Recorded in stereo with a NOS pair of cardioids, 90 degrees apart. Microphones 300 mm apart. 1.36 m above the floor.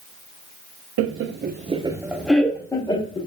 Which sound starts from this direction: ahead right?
Laughter, at 1.0 s.